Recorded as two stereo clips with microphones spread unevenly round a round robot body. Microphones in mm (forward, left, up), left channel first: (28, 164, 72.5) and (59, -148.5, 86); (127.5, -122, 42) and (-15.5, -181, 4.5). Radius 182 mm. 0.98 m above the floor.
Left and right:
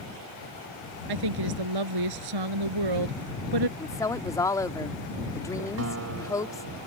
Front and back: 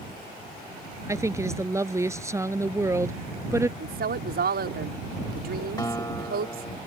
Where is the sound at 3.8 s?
175° left.